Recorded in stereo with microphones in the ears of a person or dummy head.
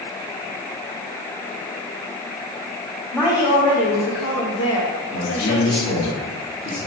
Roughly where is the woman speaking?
Centre.